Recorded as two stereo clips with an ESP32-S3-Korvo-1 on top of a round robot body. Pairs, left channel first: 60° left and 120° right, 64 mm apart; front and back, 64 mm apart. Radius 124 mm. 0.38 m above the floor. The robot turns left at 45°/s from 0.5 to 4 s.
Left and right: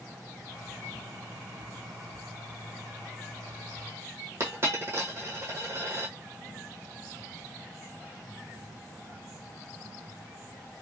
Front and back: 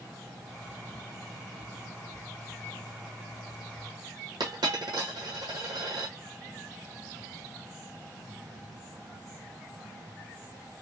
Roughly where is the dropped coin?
Behind.